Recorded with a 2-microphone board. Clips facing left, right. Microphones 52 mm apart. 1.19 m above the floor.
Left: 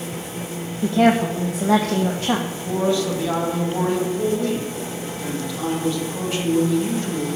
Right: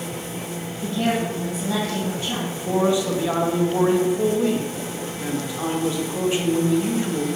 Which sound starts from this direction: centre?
A man speaking, at 2.5 s.